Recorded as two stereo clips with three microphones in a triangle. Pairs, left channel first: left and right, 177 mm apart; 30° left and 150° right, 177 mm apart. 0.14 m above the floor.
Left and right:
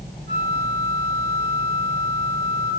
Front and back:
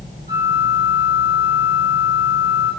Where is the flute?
145° left, 1.3 m.